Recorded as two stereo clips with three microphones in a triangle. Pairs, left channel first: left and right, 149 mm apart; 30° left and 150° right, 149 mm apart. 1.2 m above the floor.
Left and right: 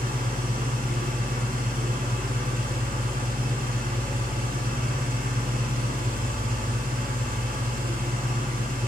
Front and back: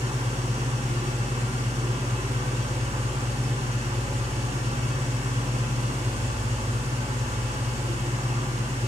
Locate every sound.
0.0 s an engine running: 105° right, 1.1 m